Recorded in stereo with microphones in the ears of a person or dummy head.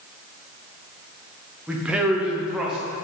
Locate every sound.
1.7 s a man speaking: 10° right (ahead or behind), 0.9 m; by 2.8 s 5° right (ahead or behind), 1.7 m